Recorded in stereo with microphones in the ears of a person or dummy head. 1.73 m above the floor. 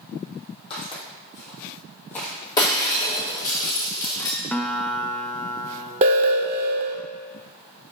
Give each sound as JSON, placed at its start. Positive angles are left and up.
{"t": 0.7, "sound": "footsteps", "side_deg": 30, "distance_m": 3.0}
{"t": 2.6, "sound": "breaking glass", "side_deg": 20, "distance_m": 1.1}
{"t": 4.5, "sound": "a guitar", "side_deg": 5, "distance_m": 0.6}
{"t": 6.0, "sound": "an alarm", "side_deg": -35, "distance_m": 0.6}